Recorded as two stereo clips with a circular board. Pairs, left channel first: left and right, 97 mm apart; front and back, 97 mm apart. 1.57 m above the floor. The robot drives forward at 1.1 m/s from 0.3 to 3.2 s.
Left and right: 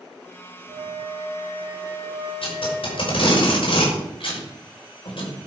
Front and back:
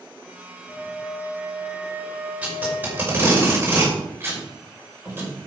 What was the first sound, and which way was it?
A flute, 85° right.